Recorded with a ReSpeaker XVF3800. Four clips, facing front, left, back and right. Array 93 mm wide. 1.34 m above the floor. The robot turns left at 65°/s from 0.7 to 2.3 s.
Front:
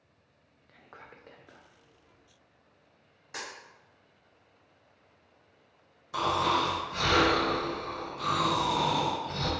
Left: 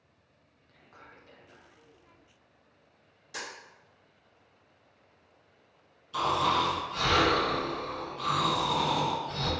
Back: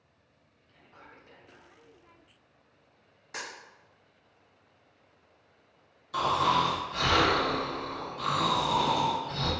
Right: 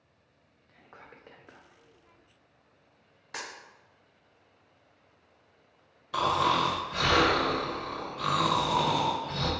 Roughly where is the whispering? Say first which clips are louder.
Right 2 dB, front 3 dB; ahead.